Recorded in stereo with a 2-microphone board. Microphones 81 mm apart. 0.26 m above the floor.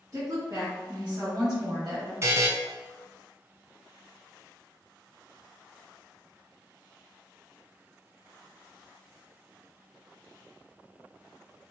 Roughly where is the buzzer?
Right.